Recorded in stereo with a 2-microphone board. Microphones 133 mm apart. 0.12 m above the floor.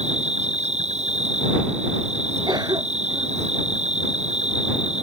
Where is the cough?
30° right (ahead or behind).